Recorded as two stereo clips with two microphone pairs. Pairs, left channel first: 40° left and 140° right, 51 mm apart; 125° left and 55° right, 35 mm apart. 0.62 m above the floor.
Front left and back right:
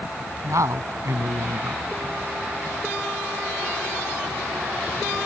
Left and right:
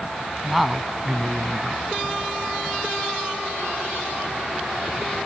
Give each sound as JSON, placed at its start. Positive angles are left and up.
{"t": 0.4, "sound": "a man speaking", "azimuth_deg": -140}